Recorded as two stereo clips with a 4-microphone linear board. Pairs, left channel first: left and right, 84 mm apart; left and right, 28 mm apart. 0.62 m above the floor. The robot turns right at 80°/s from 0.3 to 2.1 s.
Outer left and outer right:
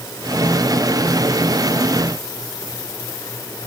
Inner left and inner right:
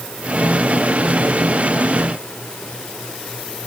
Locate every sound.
Only background noise.